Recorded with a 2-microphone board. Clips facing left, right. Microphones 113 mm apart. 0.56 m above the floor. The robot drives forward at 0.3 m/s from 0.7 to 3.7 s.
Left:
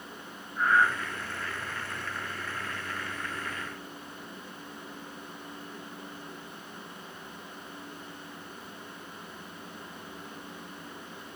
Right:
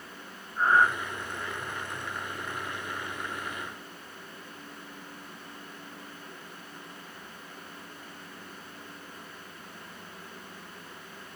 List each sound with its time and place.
0.6 s breathing: 30° right (ahead or behind), 0.7 m; by 0.9 s 25° right (ahead or behind), 0.7 m